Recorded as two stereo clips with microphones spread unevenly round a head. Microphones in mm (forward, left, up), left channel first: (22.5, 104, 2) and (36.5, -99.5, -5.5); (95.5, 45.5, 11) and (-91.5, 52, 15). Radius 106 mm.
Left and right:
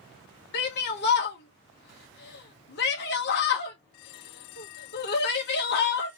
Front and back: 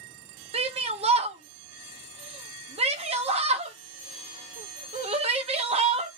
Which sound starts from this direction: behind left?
A shout, at 0.5 s.